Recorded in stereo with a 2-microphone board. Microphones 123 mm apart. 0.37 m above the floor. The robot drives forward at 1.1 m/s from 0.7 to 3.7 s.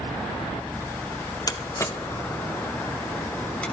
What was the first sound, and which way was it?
A door slam, 30° left (ahead or behind).